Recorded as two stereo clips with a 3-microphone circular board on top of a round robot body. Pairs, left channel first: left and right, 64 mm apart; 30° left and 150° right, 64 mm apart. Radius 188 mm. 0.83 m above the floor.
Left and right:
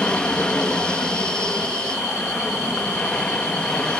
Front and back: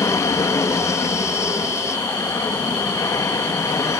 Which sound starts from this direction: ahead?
An aircraft, at 0.0 s.